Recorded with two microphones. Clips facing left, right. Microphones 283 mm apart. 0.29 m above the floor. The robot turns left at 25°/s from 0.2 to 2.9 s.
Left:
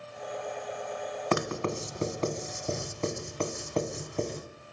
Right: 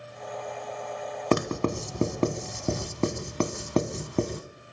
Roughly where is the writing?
Right.